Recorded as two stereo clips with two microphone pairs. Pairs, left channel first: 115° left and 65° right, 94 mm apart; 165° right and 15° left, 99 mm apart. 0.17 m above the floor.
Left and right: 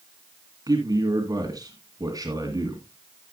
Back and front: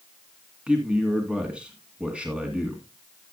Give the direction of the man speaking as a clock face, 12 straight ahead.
2 o'clock.